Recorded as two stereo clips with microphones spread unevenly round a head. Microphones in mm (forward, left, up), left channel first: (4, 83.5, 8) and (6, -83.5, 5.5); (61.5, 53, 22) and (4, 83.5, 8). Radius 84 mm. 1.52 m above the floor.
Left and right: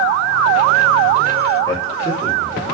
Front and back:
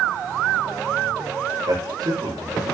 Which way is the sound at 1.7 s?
165° left.